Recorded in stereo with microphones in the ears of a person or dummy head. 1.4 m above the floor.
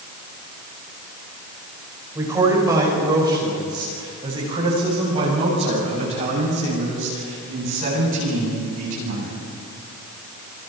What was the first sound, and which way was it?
A man speaking, 15° right (ahead or behind).